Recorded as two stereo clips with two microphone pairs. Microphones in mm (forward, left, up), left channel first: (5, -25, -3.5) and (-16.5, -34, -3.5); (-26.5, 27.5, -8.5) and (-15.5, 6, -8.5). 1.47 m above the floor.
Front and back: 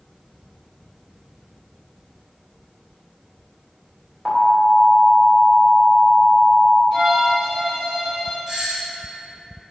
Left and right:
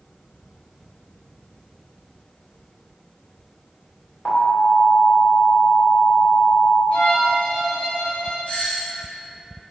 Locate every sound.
4.2 s an alarm: 110° left, 2.5 m
6.9 s a violin: 135° left, 2.5 m
8.5 s a doorbell: 145° left, 1.4 m